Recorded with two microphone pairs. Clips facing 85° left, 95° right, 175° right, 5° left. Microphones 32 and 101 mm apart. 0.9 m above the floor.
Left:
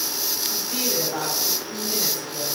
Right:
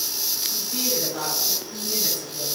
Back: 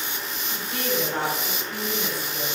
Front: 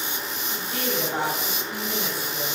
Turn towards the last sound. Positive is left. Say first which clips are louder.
# left 1 dB, back 1 dB
turn(degrees=85)